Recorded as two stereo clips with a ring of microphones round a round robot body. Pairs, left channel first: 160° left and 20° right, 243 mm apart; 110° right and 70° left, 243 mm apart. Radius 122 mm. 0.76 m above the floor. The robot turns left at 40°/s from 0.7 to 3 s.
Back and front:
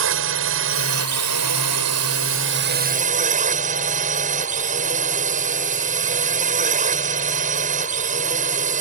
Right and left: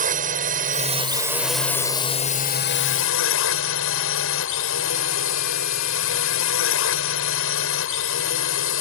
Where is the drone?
10° left; by 8.8 s 80° right.